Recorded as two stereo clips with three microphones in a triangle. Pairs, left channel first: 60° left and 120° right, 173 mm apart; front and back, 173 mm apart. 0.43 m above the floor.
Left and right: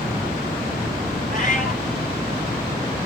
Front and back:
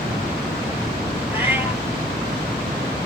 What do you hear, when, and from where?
1.3 s a cat meowing: 105° left, 3.5 m